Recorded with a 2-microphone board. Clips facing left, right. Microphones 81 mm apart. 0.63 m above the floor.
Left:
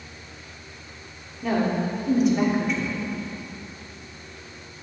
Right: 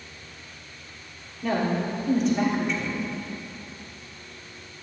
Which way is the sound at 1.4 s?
5° left (ahead or behind).